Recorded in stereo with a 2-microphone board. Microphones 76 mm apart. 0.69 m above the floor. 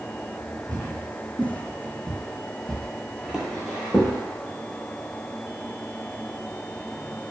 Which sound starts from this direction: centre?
Footsteps, at 0.7 s.